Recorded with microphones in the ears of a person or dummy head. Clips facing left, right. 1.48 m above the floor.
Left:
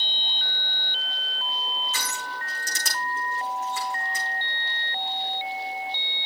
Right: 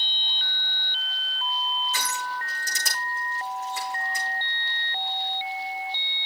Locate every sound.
1.9 s crushing: 60° left (ahead or behind), 8 m